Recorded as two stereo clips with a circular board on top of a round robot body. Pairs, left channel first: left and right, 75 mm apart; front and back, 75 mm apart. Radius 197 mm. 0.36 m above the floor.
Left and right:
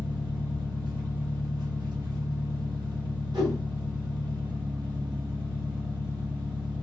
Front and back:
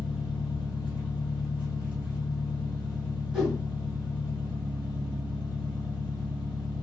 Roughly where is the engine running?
Right.